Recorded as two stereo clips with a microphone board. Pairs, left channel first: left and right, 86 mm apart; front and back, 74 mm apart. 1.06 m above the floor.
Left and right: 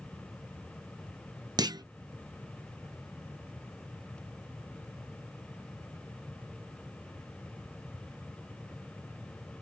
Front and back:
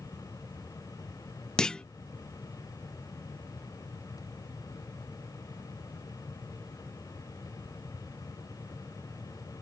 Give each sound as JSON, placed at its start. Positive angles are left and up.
{"t": 1.6, "sound": "a clunk", "azimuth_deg": -75}